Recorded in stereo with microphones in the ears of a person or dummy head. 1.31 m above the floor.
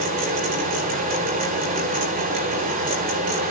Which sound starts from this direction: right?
A fan, at 0.0 s.